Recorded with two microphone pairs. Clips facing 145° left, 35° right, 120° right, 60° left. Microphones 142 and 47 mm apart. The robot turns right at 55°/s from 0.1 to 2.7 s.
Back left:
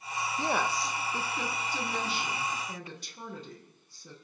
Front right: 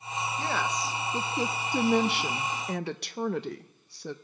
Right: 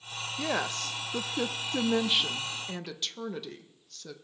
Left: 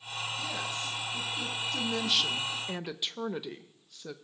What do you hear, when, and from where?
0.4 s a woman speaking: 150° right, 0.7 m; by 4.2 s 20° right, 0.7 m